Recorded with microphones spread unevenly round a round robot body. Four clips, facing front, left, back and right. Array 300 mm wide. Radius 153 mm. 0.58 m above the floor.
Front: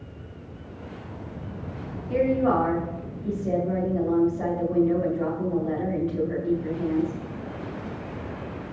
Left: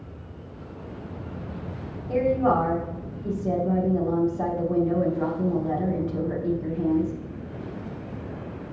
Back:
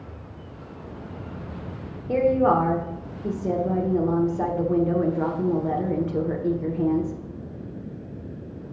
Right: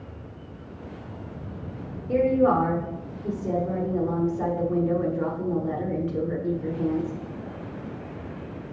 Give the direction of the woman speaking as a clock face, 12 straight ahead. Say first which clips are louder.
Right 1 dB, back 3 dB; 5 o'clock.